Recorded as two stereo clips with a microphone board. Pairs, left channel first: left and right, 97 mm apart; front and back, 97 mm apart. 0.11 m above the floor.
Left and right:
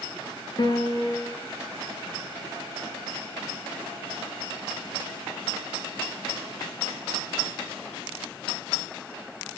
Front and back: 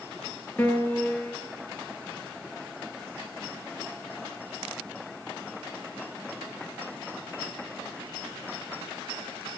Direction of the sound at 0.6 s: 60° left.